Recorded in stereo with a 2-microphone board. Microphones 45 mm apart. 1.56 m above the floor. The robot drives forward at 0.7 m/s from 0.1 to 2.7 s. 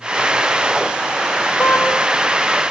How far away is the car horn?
About 7 m.